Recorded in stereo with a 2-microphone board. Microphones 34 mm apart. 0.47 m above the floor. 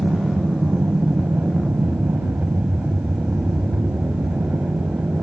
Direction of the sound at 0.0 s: 60° right (ahead or behind).